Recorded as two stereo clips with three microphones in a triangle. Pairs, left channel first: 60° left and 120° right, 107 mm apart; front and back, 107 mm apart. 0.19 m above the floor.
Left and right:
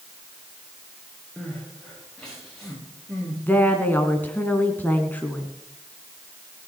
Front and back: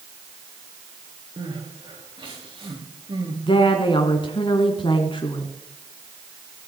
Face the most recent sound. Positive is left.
turn(degrees=-10)